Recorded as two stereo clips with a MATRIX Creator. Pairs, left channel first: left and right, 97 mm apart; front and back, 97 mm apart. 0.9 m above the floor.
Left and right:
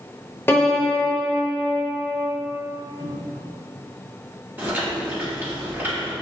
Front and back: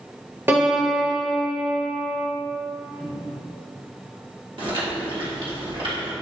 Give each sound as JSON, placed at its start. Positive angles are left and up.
{"t": 0.5, "sound": "a piano", "azimuth_deg": 135, "distance_m": 0.8}
{"t": 3.0, "sound": "a cupboard door", "azimuth_deg": 75, "distance_m": 1.3}
{"t": 4.6, "sound": "chewing", "azimuth_deg": -160, "distance_m": 1.3}